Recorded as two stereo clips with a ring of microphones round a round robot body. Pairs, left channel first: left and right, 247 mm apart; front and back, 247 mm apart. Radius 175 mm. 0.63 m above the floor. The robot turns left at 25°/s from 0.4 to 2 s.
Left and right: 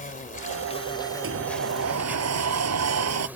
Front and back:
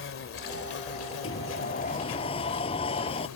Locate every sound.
0.0 s an insect: 35° left; by 3.4 s 5° right
1.2 s a sliding door: 55° right; by 3.3 s 75° right